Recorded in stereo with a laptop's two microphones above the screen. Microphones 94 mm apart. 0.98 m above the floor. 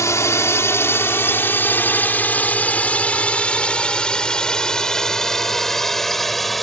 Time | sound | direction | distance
0.0 | a drone | 35° left (ahead or behind) | ?